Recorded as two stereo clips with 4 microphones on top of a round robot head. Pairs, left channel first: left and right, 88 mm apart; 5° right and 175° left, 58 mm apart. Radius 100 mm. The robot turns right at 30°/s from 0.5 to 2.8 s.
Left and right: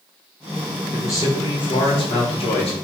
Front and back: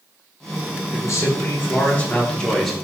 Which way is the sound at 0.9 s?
30° left.